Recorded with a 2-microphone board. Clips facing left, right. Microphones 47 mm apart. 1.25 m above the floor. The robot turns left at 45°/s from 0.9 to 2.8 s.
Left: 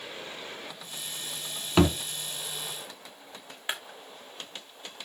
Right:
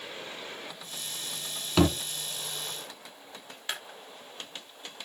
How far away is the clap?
About 2.5 m.